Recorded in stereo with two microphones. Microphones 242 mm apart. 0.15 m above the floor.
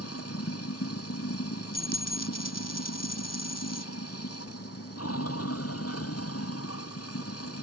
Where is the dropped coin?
85° left.